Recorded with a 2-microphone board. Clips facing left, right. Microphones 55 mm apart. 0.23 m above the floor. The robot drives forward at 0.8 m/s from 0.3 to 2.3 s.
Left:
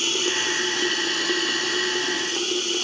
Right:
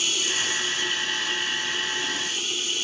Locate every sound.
0.0 s running water: 50° left (ahead or behind), 1.5 m; by 2.8 s 60° left (ahead or behind), 1.3 m